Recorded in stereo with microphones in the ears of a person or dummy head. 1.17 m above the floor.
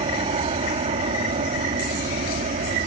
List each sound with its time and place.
0.0 s an aircraft: 35° right (ahead or behind); by 2.9 s 40° right (ahead or behind)